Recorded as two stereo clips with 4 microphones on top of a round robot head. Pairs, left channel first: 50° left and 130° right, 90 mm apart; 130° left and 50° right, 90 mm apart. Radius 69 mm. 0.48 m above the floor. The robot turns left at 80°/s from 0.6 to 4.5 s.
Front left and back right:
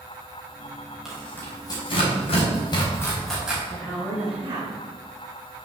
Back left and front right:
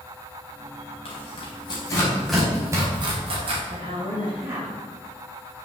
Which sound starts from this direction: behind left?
Tearing paper, at 1.1 s.